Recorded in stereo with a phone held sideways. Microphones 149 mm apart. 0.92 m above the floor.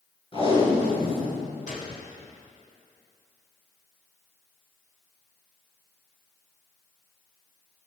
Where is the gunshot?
60° left (ahead or behind), 2.5 m.